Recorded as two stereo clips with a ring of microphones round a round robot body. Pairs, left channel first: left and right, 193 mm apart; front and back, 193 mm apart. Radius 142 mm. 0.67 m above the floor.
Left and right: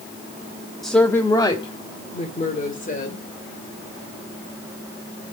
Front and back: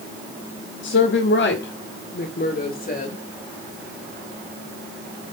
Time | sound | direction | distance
0.8 | a woman speaking | straight ahead | 1.1 m